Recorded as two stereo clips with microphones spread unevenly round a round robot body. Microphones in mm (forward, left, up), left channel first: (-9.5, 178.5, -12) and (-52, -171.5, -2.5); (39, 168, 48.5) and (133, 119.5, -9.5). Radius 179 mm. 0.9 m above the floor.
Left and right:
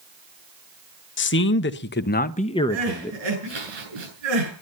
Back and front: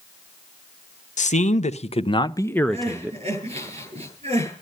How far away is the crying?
About 7.5 m.